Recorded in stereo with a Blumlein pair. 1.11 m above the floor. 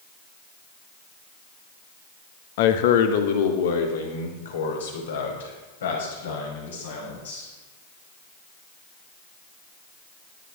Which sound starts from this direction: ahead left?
A man speaking, at 2.6 s.